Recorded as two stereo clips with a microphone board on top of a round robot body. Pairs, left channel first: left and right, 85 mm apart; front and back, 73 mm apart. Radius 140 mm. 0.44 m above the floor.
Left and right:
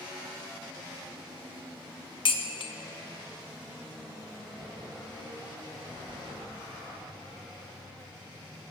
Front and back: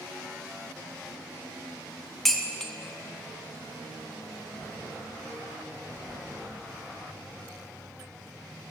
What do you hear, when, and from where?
2.2 s dishes clattering: 85° left, 1.0 m